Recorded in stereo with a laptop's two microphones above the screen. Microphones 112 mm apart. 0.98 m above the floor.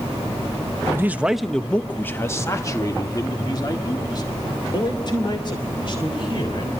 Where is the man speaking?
25° right (ahead or behind), 0.6 m; by 6.7 s 50° left (ahead or behind), 3.5 m.